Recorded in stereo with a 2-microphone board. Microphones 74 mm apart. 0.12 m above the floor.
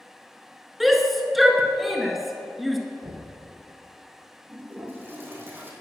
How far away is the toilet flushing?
About 2.5 m.